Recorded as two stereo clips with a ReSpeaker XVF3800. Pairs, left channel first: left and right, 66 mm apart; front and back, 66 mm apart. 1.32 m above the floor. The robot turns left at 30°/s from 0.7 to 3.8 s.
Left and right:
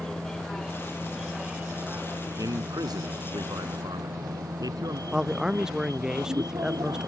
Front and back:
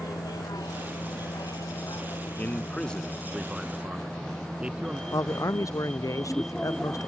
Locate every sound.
0.0 s a vehicle: 10° left; by 7.1 s 80° right
2.4 s a man speaking: 65° right; by 5.0 s 105° right
5.1 s a man speaking: 10° right